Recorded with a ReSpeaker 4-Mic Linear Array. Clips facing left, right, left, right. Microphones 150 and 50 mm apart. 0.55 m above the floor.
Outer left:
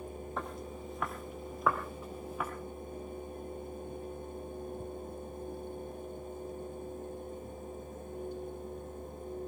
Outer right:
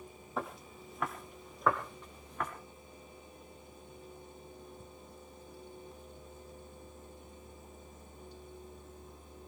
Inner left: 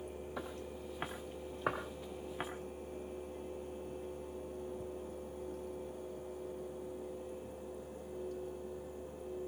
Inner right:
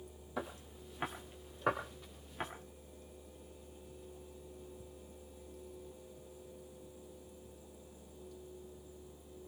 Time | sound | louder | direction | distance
0.4 | footsteps | outer right 3 dB, inner right 4 dB | 5° right (ahead or behind) | 3 m